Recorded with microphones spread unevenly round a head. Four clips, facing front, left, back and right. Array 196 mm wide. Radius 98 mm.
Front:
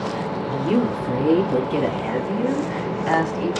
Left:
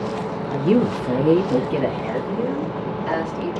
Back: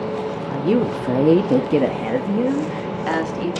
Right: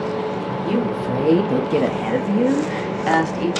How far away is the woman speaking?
About 0.9 m.